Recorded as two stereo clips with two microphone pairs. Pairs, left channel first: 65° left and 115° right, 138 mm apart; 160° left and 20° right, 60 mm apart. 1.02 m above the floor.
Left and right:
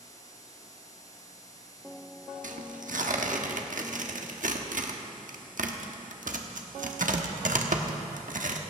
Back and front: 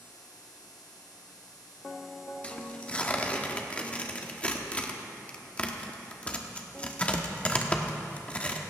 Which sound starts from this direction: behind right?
Tearing paper, at 2.4 s.